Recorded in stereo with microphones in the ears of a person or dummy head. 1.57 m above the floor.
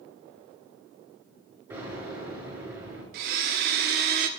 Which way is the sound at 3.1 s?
50° right (ahead or behind).